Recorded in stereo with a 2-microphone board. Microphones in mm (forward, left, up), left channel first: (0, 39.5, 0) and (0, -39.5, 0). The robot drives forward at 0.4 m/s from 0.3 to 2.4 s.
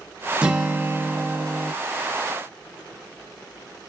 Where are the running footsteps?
I don't hear running footsteps.